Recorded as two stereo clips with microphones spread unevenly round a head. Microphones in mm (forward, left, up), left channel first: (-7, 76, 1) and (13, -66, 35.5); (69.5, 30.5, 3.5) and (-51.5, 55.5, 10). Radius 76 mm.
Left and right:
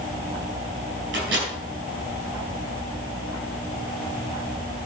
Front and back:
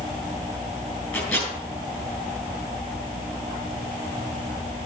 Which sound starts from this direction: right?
A microwave, at 1.1 s.